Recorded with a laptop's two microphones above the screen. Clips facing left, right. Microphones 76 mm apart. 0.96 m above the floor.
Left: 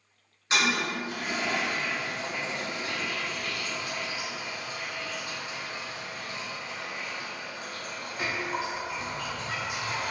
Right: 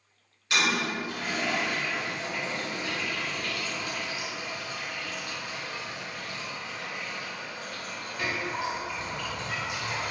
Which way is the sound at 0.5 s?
25° left (ahead or behind).